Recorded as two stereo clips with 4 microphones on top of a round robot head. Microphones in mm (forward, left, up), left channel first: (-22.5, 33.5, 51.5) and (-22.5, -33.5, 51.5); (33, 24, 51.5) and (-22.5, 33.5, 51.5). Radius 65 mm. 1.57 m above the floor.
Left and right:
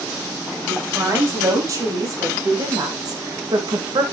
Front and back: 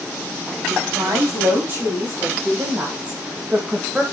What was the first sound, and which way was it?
A woman speaking, 130° right.